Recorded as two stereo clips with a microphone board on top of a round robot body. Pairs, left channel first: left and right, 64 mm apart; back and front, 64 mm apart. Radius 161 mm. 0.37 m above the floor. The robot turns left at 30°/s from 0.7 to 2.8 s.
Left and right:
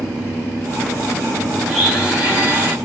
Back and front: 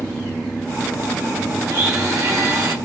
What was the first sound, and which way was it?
A blender, straight ahead.